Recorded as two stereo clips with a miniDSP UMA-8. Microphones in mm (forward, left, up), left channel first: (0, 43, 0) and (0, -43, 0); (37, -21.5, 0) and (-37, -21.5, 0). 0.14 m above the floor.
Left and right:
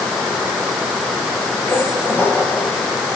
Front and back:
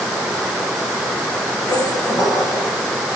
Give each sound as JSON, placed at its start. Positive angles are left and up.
{"t": 1.7, "sound": "a squeak", "azimuth_deg": 30, "distance_m": 1.5}